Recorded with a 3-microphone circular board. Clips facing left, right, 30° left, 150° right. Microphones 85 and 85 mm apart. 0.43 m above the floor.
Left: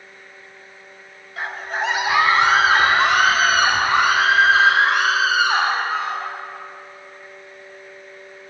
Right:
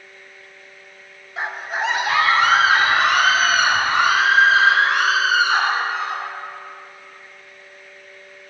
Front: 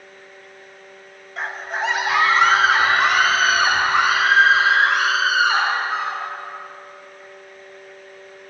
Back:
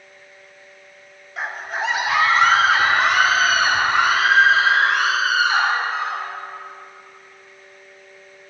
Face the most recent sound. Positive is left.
turn(degrees=115)